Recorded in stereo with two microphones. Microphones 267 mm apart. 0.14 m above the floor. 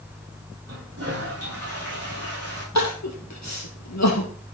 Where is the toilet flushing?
55° right (ahead or behind), 6 m.